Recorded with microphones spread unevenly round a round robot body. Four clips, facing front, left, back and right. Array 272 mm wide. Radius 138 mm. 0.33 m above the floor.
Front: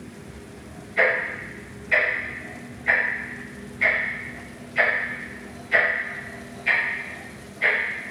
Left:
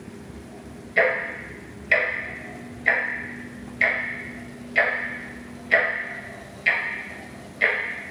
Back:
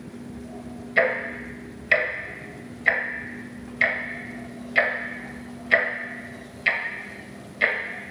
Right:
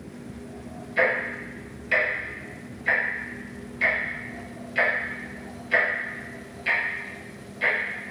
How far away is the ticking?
About 0.6 m.